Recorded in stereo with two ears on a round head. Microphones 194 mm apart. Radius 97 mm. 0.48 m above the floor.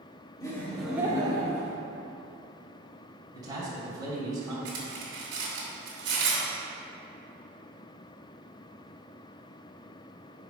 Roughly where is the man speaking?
Centre.